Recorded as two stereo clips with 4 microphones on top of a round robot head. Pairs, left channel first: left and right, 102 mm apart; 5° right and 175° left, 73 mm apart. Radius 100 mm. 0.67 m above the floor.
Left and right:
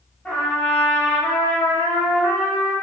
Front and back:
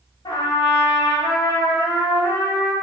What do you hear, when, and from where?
0.2 s a trumpet: 10° left, 0.6 m